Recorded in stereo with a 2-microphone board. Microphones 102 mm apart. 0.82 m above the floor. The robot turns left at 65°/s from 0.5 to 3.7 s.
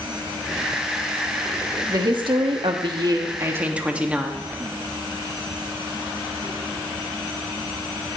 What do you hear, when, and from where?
1.9 s a woman speaking: 45° right, 1.5 m; by 4.4 s 165° right, 1.5 m